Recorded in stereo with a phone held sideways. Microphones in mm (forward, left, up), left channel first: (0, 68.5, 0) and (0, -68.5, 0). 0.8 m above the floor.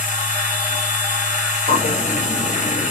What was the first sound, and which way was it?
A machine running, 60° left (ahead or behind).